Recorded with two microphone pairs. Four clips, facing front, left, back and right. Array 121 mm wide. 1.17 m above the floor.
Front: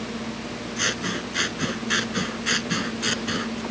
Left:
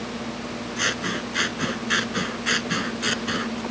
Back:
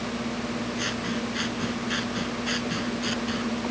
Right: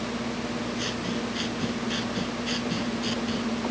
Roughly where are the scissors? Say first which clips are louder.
Left 2 dB, front 1 dB; ahead left.